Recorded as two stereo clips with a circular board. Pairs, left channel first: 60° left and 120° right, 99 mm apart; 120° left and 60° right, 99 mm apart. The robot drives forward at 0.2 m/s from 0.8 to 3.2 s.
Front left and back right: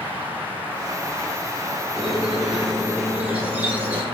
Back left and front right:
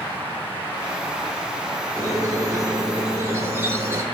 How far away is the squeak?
About 0.6 m.